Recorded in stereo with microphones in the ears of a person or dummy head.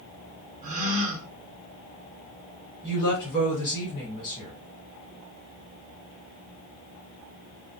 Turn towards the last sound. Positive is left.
turn(degrees=10)  # may be behind; listen again after turning